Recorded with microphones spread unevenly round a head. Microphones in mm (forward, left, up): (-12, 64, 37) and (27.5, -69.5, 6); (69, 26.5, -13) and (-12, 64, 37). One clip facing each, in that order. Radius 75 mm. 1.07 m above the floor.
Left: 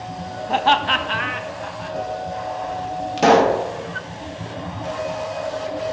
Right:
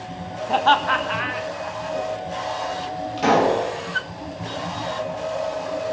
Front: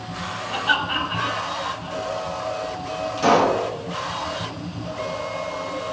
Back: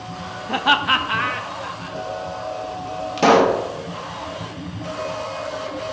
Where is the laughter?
135° right, 0.5 m; by 2.0 s 145° left, 1.5 m.